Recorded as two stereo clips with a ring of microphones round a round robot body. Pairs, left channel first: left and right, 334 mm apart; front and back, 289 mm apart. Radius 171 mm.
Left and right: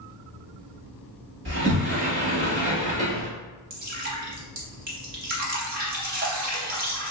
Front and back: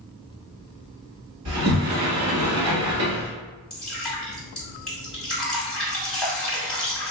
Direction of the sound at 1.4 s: 140° right.